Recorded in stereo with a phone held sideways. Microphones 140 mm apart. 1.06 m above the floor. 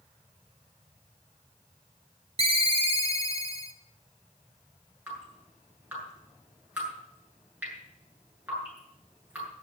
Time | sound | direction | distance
2.4 | a ringtone | 45° right (ahead or behind) | 1.3 m
5.1 | dripping | 10° right (ahead or behind) | 8 m